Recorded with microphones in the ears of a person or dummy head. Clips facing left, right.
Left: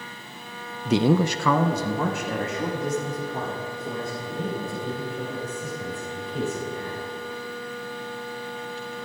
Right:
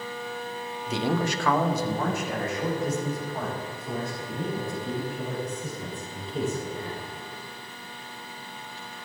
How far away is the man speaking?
About 0.6 m.